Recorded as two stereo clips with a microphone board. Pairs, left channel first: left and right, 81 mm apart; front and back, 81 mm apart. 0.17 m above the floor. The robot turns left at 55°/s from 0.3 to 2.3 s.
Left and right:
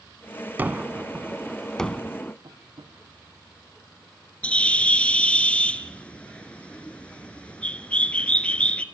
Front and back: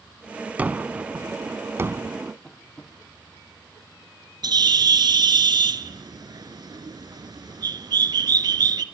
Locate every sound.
0.6 s a gunshot: 130° right, 0.6 m; by 2.3 s 135° left, 0.6 m
2.4 s tapping: 80° right, 5 m
4.4 s a bird: 165° left, 0.7 m